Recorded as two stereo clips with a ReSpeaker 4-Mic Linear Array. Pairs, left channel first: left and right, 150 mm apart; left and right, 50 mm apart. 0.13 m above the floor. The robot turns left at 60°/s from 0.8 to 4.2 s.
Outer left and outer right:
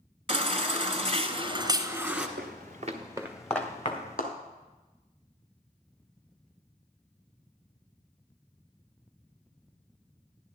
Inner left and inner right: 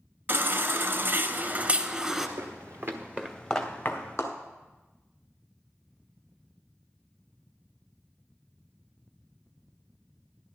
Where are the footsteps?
85° right, 1.1 m; by 4.3 s 55° left (ahead or behind), 2.5 m.